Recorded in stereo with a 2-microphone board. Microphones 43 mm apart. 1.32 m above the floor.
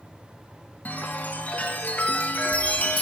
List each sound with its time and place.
0.8 s a chime: 35° left (ahead or behind), 1.6 m